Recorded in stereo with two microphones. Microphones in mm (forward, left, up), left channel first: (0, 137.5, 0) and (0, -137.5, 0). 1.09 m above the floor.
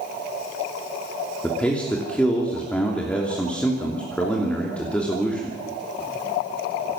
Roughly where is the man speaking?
Centre.